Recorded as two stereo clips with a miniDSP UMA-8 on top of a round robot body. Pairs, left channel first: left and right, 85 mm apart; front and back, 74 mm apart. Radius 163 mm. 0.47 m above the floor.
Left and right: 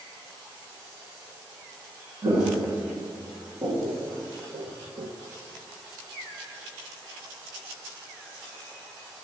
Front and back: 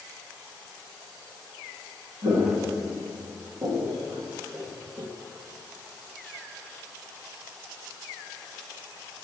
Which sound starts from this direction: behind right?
Footsteps, at 2.2 s.